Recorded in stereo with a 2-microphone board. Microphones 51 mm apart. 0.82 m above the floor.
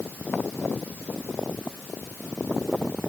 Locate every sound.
Only background noise.